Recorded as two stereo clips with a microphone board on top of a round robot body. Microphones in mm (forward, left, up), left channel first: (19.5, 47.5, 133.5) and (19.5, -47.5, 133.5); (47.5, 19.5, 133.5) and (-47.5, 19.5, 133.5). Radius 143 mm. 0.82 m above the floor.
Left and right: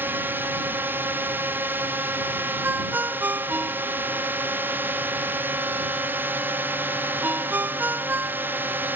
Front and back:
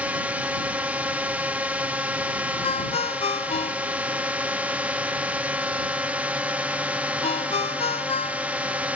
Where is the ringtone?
20° right.